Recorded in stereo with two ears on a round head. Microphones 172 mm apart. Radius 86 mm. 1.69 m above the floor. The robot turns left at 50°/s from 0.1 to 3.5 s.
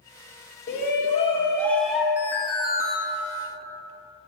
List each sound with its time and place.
0.7 s a shout: 60° left, 3 m; by 2.1 s 10° right, 3 m
2.2 s an alarm: 10° right, 1.7 m; by 3.0 s 50° right, 1.7 m